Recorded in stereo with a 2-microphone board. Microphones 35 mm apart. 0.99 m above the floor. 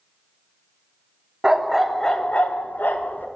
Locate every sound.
1.4 s a dog barking: 20° right (ahead or behind), 0.7 m; by 3.2 s 65° left (ahead or behind), 1.0 m